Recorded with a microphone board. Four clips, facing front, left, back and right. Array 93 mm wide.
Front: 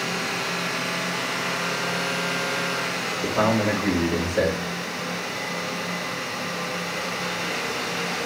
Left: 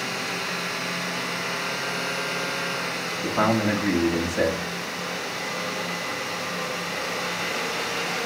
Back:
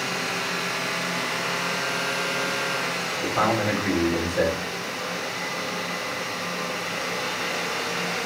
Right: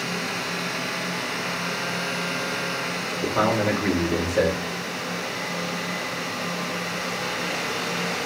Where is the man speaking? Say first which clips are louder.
Even, front 1 dB; 90° right, 4 m.